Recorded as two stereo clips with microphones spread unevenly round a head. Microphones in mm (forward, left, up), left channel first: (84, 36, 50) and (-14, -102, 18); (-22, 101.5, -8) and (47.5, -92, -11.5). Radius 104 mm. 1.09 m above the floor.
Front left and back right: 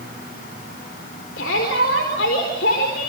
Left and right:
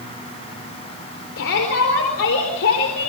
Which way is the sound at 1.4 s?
85° left.